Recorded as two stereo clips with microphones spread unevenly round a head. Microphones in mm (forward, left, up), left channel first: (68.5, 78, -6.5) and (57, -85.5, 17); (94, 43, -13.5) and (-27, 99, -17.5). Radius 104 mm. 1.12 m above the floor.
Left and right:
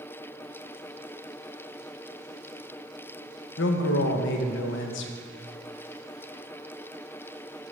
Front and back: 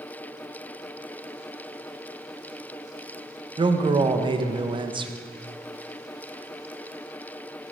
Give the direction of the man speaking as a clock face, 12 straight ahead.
9 o'clock.